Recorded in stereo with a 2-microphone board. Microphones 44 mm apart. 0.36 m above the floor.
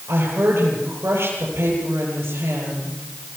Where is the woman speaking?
70° right (ahead or behind), 9.5 m.